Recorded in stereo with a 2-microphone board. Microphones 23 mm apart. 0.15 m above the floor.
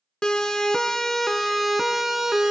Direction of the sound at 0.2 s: 35° left (ahead or behind).